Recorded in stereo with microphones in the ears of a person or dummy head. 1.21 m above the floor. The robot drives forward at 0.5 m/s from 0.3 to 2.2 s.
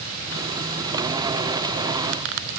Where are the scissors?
No scissors in this recording.